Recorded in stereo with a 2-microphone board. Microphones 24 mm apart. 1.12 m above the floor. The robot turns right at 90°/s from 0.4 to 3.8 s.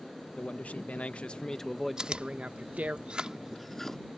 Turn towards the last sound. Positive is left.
turn(degrees=10)  # may be behind; listen again after turning